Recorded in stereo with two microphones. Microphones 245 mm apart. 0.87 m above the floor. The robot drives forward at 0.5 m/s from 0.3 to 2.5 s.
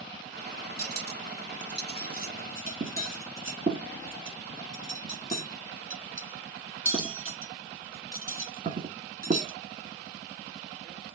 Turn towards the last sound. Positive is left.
turn(degrees=-35)  # may be behind; listen again after turning